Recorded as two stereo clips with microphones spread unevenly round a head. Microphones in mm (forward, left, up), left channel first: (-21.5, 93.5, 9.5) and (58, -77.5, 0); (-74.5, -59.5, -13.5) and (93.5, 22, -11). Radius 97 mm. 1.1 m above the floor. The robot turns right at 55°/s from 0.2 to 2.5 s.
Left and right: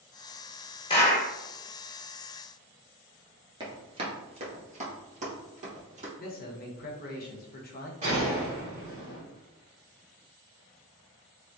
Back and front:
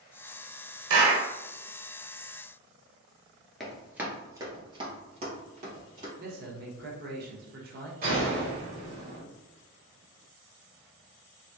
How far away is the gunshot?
About 1.6 m.